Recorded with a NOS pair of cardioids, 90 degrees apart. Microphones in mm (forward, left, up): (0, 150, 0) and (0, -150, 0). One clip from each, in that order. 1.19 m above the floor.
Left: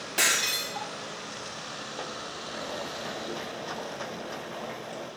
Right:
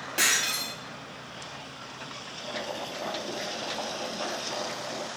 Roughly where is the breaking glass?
Ahead.